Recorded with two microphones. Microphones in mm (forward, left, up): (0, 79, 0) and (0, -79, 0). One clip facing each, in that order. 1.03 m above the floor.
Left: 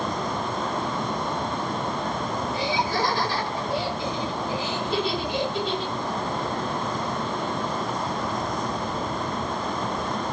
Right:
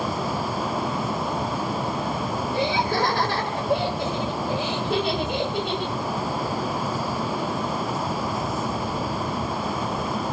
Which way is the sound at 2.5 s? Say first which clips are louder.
Right 3 dB; 60° right (ahead or behind).